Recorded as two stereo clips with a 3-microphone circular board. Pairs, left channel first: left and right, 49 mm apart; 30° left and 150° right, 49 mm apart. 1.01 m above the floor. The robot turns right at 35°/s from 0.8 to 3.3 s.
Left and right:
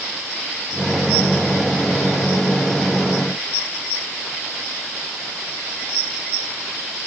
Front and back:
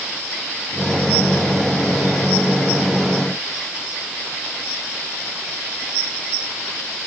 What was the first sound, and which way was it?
Only background noise.